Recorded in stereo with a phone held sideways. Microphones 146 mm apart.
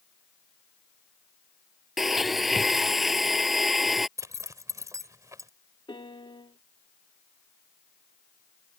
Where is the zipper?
20° right (ahead or behind).